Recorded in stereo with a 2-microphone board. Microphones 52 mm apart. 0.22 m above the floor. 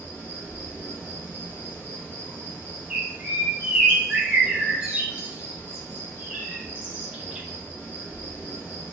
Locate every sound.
0.0 s an insect: 40° left (ahead or behind), 1.0 m
2.9 s a bird: 25° right (ahead or behind), 0.6 m